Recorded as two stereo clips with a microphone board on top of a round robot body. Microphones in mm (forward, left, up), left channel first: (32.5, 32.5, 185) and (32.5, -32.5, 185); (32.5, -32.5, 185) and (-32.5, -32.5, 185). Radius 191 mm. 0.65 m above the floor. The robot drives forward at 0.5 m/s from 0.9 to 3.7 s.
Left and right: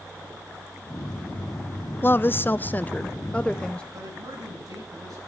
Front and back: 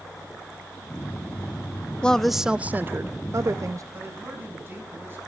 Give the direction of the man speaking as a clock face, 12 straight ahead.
4 o'clock.